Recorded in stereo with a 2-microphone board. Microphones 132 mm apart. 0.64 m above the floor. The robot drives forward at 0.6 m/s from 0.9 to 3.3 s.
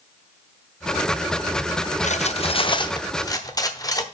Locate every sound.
2.0 s cutlery clinking: 65° left (ahead or behind), 0.5 m; by 4.0 s 25° left (ahead or behind), 1.1 m